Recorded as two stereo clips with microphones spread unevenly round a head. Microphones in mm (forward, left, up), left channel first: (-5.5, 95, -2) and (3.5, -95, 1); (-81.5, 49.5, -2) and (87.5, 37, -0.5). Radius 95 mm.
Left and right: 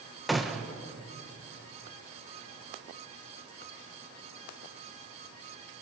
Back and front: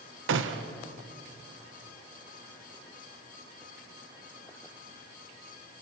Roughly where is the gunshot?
Ahead.